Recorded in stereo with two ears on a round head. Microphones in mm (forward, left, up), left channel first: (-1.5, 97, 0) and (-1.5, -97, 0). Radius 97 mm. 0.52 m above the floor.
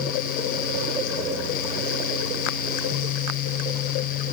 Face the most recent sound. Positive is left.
No sound to turn to.